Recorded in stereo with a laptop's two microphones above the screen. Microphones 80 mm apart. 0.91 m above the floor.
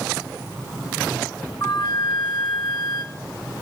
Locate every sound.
1.6 s a flute: 60° left (ahead or behind), 1.1 m